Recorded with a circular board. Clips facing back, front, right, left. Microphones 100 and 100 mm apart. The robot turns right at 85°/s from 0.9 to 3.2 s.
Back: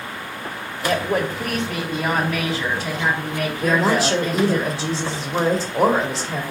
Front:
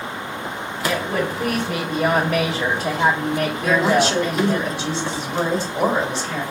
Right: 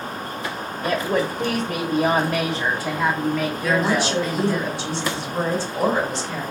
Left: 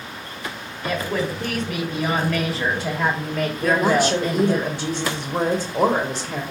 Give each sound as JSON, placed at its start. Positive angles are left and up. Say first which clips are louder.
{"t": 0.8, "sound": "a woman speaking", "louder": "back 2 dB, right 2 dB", "azimuth_deg": -135, "distance_m": 1.2}
{"t": 3.6, "sound": "a woman speaking", "louder": "front 1 dB, left 4 dB", "azimuth_deg": 130, "distance_m": 1.2}